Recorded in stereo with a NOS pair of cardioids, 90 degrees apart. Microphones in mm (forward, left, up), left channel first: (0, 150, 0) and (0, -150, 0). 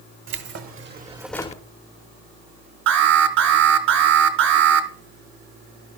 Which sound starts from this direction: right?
An alarm, at 2.9 s.